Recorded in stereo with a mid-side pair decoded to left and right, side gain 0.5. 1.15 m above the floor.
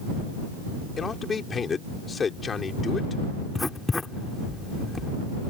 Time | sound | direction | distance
1.0 | a man speaking | 35° left | ?
3.5 | writing | 20° left | ?